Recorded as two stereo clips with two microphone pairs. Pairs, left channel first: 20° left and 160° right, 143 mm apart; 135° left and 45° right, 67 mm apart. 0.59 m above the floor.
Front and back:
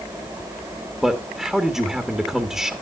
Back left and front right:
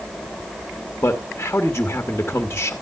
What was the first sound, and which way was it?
A man speaking, 110° left.